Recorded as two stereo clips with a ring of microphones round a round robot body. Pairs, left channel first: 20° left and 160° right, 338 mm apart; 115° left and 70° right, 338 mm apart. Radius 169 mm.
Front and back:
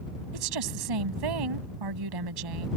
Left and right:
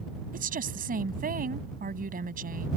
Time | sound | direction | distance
0.3 | a woman speaking | 135° right | ?